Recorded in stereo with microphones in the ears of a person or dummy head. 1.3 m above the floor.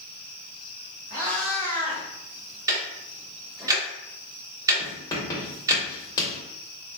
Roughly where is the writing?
Left.